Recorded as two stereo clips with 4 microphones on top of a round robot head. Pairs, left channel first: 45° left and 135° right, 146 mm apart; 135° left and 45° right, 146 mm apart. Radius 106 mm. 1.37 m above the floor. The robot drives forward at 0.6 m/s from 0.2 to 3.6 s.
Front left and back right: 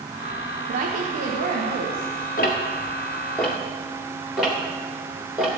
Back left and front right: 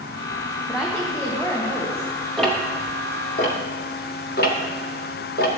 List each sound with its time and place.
0.7 s a woman speaking: 135° right, 0.9 m; by 2.3 s 155° right, 1.7 m
2.4 s ticking: 50° left, 0.7 m; by 5.5 s 140° left, 0.8 m